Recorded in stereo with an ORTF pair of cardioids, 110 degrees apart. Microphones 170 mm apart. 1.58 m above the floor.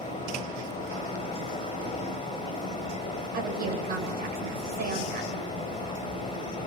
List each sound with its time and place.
0.0 s a fan: 30° left, 9.5 m
3.3 s a woman speaking: 55° right, 9 m